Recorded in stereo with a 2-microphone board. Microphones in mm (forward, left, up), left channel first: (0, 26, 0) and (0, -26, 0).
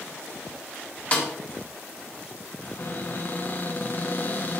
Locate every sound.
1.1 s a snare drum: 25° left (ahead or behind), 1.8 m
2.6 s a cupboard door: 40° left (ahead or behind), 1.0 m